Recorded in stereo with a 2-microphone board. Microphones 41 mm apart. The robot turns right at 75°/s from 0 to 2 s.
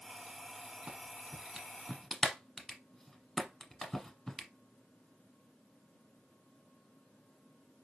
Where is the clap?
40° right (ahead or behind), 1.0 m; by 4.5 s 5° left (ahead or behind), 1.0 m.